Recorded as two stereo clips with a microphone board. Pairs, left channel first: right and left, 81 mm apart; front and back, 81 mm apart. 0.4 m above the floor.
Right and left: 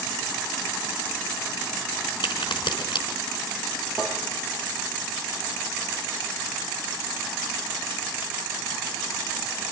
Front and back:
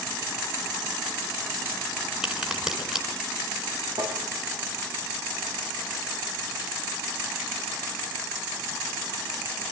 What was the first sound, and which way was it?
A crack, 100° right.